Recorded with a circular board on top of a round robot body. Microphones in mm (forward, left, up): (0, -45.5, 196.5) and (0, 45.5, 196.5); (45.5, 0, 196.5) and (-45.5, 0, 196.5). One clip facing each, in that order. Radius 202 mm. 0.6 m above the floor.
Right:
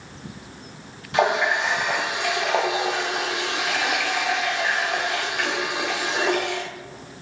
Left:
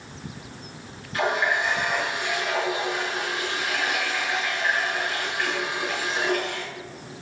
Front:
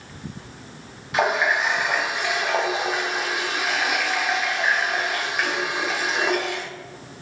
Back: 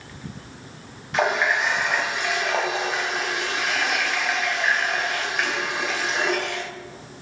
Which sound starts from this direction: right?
A running tap, at 1.1 s.